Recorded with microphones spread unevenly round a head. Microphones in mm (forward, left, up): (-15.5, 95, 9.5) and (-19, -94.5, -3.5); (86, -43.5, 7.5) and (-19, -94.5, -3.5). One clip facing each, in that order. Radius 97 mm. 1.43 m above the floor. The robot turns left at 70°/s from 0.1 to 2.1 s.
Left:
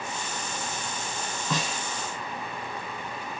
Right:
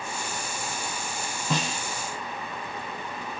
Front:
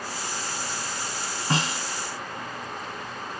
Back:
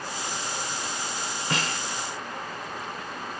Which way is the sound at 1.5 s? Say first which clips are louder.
Right 2 dB, front 4 dB; 25° right.